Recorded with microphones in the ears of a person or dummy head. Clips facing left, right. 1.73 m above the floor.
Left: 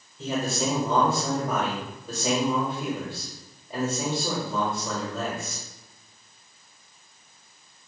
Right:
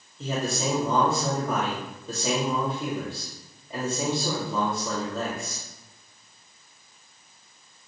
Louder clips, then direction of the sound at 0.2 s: Left 1 dB; 5° left (ahead or behind).